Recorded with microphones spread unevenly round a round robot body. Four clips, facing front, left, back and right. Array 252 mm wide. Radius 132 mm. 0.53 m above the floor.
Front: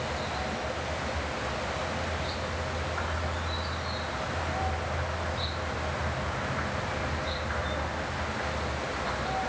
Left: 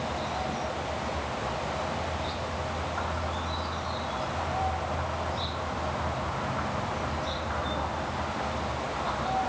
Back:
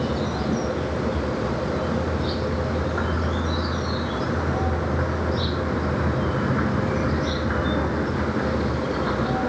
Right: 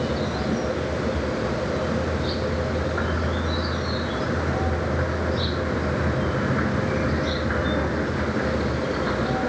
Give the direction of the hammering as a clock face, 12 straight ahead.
I don't hear hammering.